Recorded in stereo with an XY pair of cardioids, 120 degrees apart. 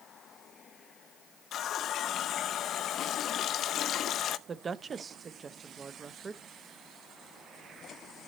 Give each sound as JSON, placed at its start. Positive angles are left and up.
{"t": 1.5, "sound": "a running tap", "azimuth_deg": 60, "distance_m": 0.6}
{"t": 4.5, "sound": "a woman speaking", "azimuth_deg": -30, "distance_m": 0.8}